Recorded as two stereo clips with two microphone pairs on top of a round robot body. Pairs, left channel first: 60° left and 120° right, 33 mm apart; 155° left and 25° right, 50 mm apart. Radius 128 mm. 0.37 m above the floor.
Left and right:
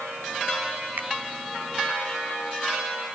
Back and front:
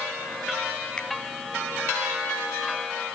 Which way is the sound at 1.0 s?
130° right.